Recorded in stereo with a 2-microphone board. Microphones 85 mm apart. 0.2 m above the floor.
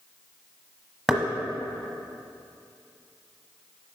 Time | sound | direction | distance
1.1 | knocking | centre (ahead or behind) | 1.0 m